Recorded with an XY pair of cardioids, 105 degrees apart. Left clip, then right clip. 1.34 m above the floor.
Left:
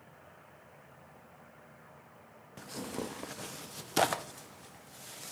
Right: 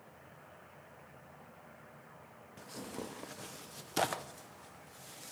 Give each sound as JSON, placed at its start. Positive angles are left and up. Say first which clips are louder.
{"t": 2.6, "sound": "tearing paper", "louder": "left 5 dB", "azimuth_deg": 35, "distance_m": 0.7}